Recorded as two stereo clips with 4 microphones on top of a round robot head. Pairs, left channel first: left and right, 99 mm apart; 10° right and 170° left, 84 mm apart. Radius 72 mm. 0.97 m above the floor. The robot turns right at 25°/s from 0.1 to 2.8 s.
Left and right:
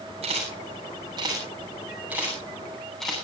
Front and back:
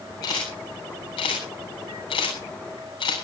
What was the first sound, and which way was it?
A camera shutter, 60° right.